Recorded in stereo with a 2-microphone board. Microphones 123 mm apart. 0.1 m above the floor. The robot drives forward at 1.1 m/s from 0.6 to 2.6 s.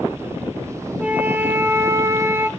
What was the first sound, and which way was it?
A flute, 10° right (ahead or behind).